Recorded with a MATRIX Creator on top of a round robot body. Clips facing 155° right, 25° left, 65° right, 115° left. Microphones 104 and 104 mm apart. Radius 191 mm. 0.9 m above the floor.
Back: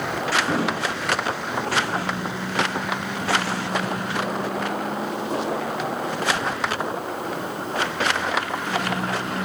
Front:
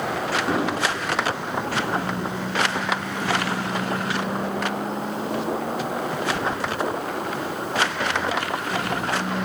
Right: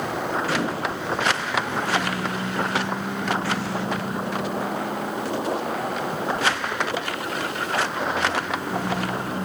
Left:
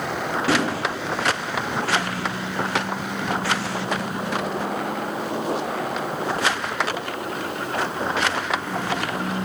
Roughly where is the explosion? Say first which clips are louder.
Front 1 dB, left 3 dB; left.